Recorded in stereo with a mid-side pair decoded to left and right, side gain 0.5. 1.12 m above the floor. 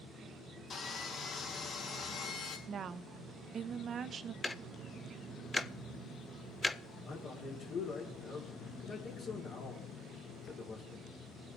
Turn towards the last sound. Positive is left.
turn(degrees=60)